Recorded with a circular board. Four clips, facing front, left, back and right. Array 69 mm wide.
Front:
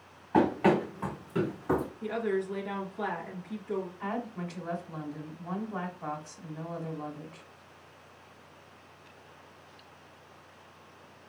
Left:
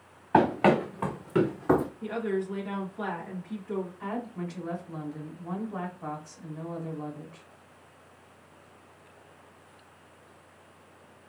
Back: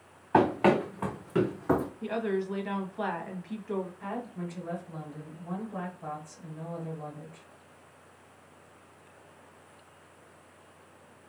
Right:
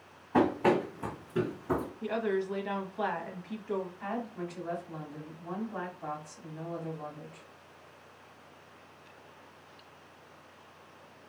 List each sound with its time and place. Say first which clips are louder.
0.3 s running footsteps: left 4 dB, back 1 dB; 120° left, 1.4 m; by 1.9 s 105° left, 0.6 m
2.0 s a woman speaking: left 1 dB, even; 135° right, 1.1 m
4.0 s a woman speaking: left 2 dB, front 1 dB; 5° left, 1.6 m